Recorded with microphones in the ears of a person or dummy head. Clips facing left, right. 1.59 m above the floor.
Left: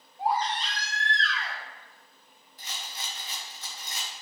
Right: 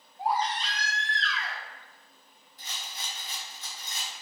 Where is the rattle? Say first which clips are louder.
Left 2 dB; 55° left (ahead or behind), 1.0 m.